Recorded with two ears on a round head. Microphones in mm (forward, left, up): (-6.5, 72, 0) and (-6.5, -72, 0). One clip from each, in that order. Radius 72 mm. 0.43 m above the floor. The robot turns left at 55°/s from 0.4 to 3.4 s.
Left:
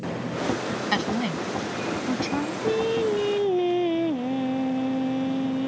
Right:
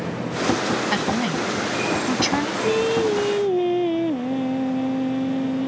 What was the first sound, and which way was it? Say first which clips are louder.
A woman speaking: right 3 dB; 15° left (ahead or behind).